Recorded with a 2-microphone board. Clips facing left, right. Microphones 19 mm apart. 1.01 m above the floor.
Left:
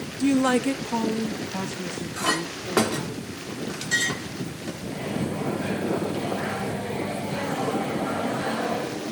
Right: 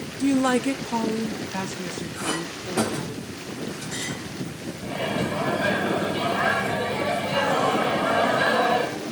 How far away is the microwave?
About 1.9 m.